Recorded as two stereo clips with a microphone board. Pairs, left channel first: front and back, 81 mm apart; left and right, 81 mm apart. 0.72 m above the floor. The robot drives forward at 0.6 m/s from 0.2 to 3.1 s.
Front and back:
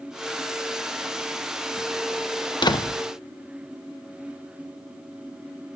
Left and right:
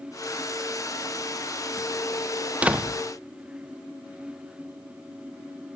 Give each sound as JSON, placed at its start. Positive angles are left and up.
{"t": 2.6, "sound": "a door slam", "azimuth_deg": -20, "distance_m": 0.7}